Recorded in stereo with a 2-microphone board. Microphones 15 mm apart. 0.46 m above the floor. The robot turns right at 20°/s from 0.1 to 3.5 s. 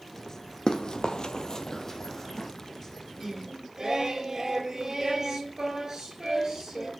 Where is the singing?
30° right (ahead or behind), 3.5 m; by 6.9 s 35° right (ahead or behind), 3.5 m.